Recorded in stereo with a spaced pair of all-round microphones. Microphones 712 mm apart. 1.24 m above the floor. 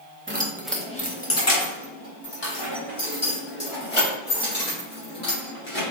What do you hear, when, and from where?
0.3 s keys jangling: 20° right (ahead or behind), 0.7 m; by 5.9 s 50° left (ahead or behind), 3.5 m